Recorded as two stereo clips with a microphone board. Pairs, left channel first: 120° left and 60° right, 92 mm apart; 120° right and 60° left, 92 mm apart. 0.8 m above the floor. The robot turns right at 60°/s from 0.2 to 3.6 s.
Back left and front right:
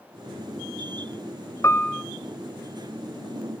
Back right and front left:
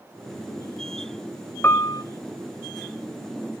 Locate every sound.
1.6 s a piano: 175° left, 0.7 m; by 2.0 s 160° right, 0.7 m